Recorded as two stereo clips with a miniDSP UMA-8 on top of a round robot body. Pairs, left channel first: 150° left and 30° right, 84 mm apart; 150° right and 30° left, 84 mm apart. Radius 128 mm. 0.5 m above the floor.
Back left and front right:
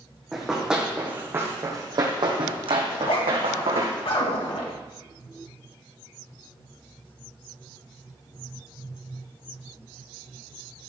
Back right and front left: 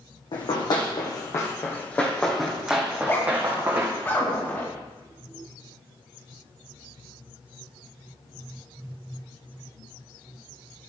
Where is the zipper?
145° left, 2.5 m.